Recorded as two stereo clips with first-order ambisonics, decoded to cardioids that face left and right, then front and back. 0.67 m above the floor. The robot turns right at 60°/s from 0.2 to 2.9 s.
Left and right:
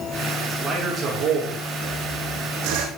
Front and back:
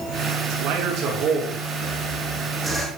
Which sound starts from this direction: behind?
A man speaking, at 0.5 s.